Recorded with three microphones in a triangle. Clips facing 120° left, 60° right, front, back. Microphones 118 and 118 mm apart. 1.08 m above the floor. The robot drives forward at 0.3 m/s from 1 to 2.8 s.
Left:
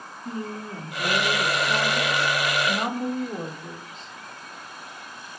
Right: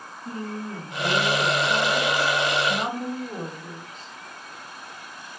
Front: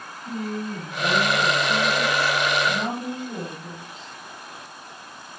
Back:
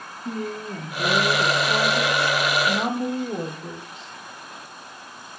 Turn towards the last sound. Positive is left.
turn(degrees=-160)